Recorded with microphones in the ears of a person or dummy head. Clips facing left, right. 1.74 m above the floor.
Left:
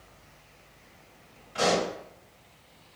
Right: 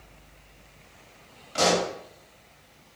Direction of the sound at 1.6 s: 70° right (ahead or behind).